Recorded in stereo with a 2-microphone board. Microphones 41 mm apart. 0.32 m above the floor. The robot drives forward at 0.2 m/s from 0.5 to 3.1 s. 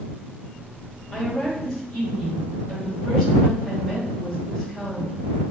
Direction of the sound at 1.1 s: 5° left (ahead or behind).